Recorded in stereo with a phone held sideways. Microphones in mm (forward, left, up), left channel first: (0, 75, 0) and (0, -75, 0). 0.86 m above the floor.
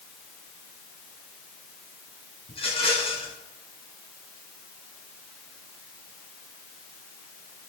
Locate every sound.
2.5 s a rattle: 40° left (ahead or behind), 8.5 m